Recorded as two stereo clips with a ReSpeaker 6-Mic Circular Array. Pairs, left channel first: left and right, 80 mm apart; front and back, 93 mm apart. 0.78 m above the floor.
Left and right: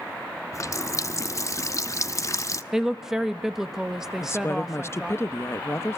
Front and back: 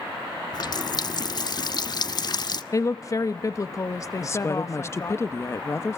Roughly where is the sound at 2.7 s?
Ahead.